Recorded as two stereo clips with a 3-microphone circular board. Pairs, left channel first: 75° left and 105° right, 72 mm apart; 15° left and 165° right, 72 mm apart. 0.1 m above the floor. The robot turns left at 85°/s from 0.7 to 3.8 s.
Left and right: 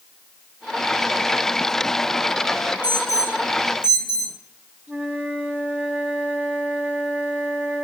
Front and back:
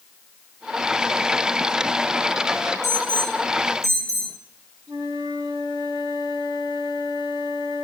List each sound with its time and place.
2.8 s an alarm: 35° right, 3.5 m; by 4.3 s 120° right, 3.5 m
4.9 s a flute: 175° right, 4 m